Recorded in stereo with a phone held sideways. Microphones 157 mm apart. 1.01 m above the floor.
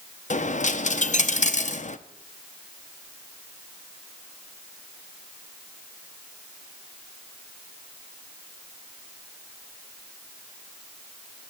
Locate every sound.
0.3 s a dropped coin: 50° left (ahead or behind), 0.5 m